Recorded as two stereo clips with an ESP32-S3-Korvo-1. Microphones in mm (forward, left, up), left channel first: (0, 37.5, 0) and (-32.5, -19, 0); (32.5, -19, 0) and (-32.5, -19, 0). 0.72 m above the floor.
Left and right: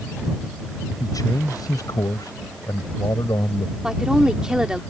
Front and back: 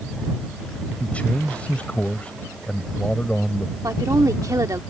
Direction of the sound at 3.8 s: 160° left.